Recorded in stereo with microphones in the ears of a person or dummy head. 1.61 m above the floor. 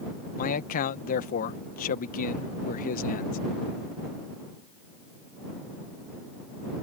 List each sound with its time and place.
0.4 s a man speaking: 50° left (ahead or behind)